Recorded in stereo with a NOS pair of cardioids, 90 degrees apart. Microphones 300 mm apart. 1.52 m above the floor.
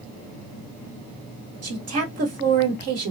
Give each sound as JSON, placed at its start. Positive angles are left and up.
{"t": 1.6, "sound": "a woman speaking", "azimuth_deg": -55, "distance_m": 1.5}